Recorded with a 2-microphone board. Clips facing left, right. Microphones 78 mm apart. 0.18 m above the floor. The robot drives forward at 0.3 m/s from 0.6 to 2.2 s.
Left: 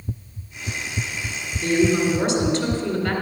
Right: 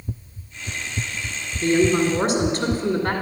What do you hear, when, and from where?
1.6 s a woman speaking: 45° right (ahead or behind), 2.0 m